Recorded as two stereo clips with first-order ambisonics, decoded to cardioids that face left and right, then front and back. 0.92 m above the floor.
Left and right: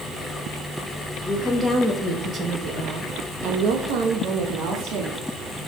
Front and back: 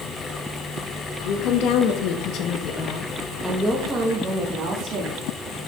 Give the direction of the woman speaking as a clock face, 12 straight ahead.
12 o'clock.